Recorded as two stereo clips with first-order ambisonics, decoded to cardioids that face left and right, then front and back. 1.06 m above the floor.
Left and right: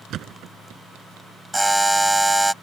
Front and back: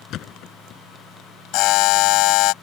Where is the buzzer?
5° right.